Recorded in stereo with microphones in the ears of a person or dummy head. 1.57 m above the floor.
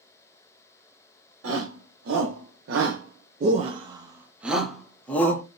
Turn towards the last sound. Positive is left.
turn(degrees=10)  # may be behind; listen again after turning